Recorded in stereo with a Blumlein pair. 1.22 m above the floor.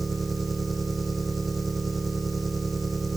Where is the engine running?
15° right.